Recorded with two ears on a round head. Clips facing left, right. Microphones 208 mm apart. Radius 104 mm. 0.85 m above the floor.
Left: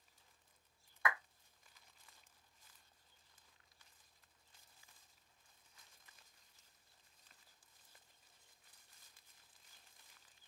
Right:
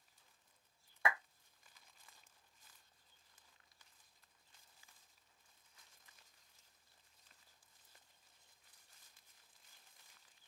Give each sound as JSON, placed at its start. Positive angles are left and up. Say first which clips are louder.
{"t": 1.1, "sound": "a clap", "louder": "right 1 dB", "side_deg": -25, "distance_m": 0.7}